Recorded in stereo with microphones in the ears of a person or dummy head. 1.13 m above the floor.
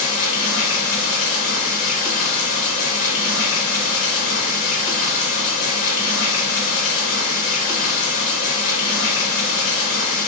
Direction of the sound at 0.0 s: 45° left (ahead or behind).